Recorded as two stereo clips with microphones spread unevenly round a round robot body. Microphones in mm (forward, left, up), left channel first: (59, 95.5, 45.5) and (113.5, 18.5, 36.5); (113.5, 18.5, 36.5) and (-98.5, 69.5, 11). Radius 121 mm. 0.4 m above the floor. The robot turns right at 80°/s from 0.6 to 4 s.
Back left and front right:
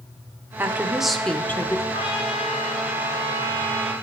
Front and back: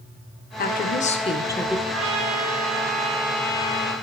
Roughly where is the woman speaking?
Ahead.